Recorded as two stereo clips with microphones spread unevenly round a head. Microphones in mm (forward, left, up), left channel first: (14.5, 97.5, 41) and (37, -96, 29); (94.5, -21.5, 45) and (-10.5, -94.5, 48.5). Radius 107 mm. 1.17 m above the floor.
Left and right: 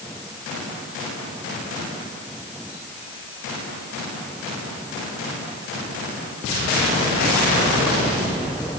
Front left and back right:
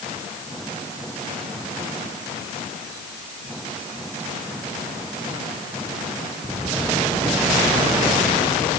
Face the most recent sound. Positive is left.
No sound to turn to.